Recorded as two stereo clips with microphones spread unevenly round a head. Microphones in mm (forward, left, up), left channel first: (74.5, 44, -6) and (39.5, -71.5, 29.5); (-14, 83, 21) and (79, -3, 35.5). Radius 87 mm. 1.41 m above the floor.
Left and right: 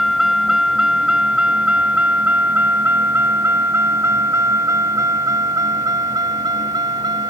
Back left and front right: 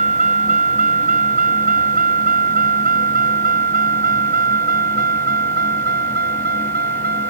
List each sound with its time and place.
0.0 s a vehicle: 20° right; by 7.3 s 55° right